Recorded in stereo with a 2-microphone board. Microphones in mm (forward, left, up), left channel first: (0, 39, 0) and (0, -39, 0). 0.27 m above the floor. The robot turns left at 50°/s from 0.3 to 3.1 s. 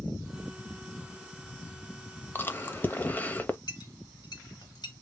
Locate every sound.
2.4 s chewing: 25° left (ahead or behind), 0.7 m; by 3.6 s 20° left (ahead or behind), 0.7 m
3.7 s a clink: 55° left (ahead or behind), 2.5 m